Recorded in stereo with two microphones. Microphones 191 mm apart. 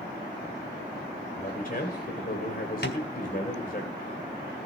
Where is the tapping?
60° left (ahead or behind), 2.5 m.